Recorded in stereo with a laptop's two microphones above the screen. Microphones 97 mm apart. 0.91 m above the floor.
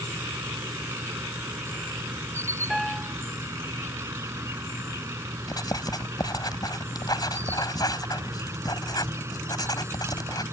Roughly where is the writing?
Left.